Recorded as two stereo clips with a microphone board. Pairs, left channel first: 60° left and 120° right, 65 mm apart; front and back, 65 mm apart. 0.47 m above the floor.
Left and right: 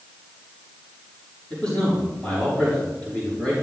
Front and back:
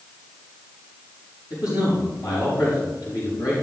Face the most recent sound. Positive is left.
turn(degrees=-10)